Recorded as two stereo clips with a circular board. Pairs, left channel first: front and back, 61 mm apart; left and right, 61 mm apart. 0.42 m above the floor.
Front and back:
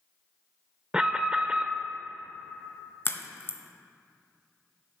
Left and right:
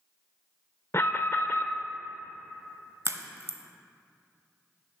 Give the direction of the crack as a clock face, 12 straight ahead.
2 o'clock.